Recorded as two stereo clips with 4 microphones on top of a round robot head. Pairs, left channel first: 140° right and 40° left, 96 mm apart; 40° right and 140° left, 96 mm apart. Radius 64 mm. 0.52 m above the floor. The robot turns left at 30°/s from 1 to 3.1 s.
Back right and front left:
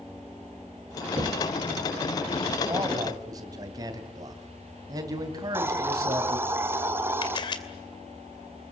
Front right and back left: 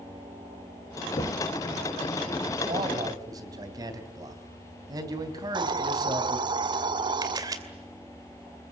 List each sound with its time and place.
1.2 s knocking: 10° right, 1.8 m; by 1.5 s 20° right, 1.8 m
2.7 s a man speaking: 105° left, 3 m; by 6.4 s 90° left, 3 m
5.4 s a hiss: 105° left, 1.2 m
7.2 s a camera shutter: 175° right, 2.5 m